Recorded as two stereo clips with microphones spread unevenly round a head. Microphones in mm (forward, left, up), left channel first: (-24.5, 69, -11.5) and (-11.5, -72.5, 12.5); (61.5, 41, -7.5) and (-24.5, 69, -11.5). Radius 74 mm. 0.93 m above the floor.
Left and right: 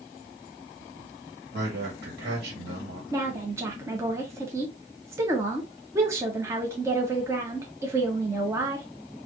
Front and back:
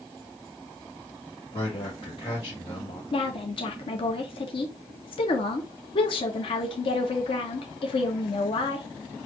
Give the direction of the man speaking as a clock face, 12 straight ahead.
2 o'clock.